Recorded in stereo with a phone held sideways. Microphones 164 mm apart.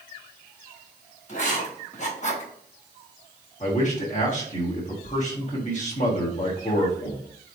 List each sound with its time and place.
1.3 s writing: 45° left (ahead or behind), 1.0 m
3.6 s a man speaking: 45° left (ahead or behind), 1.2 m